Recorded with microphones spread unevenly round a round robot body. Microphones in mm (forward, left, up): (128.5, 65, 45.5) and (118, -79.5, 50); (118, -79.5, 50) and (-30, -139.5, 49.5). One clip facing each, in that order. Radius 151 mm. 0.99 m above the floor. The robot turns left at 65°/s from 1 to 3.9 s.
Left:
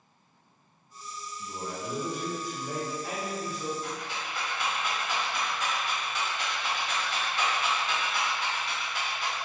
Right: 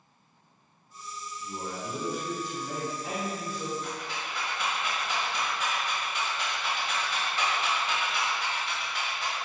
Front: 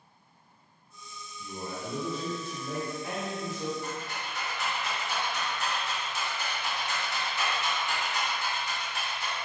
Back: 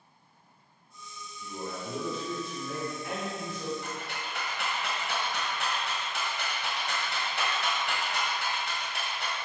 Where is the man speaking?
95° left, 2.0 m; by 3.7 s 55° right, 2.0 m.